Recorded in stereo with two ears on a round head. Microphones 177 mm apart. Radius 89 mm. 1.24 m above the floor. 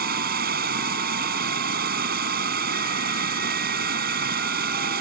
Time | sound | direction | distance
0.0 | running water | 50° right (ahead or behind) | ?